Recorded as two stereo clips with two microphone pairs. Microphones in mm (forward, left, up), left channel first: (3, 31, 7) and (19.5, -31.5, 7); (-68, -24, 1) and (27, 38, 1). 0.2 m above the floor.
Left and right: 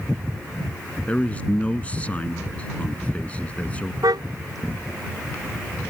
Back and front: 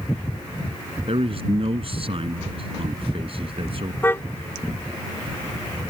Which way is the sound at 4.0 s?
75° right.